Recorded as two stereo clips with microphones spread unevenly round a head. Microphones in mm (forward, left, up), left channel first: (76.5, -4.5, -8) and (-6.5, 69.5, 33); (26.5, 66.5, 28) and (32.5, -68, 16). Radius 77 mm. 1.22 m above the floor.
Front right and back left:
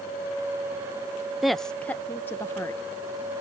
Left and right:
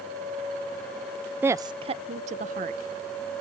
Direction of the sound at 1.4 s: 55° right.